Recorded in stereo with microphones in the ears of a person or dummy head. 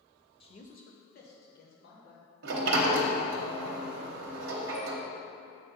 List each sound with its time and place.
0.4 s a man speaking: 25° left (ahead or behind), 0.7 m; by 2.2 s 55° left (ahead or behind), 2.5 m
2.4 s a sliding door: 55° right (ahead or behind), 0.9 m